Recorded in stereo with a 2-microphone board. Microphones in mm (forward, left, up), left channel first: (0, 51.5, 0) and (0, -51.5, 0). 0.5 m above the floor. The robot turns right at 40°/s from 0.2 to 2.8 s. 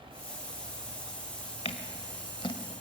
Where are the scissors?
75° left (ahead or behind), 1.3 m; by 2.5 s 55° left (ahead or behind), 1.3 m.